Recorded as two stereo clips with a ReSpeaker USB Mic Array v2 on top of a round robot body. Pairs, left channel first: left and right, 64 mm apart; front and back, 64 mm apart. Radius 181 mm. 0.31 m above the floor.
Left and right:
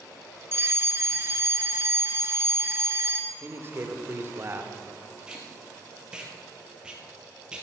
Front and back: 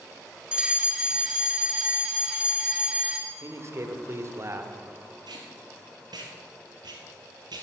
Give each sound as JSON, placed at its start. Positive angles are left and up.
{"t": 0.5, "sound": "a fire alarm", "azimuth_deg": -115, "distance_m": 2.5}
{"t": 3.3, "sound": "a man speaking", "azimuth_deg": -140, "distance_m": 1.6}
{"t": 5.3, "sound": "tape being pulled", "azimuth_deg": -170, "distance_m": 2.0}